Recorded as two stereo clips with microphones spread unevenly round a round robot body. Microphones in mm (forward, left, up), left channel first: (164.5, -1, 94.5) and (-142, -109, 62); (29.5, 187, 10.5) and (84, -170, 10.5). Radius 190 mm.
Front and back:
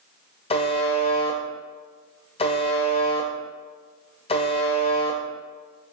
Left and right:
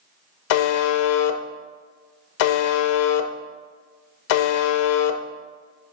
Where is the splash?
No splash in this recording.